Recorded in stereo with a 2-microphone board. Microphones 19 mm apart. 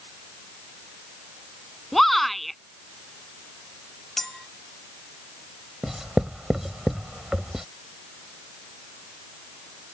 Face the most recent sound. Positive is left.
turn(degrees=-25)  # may be behind; listen again after turning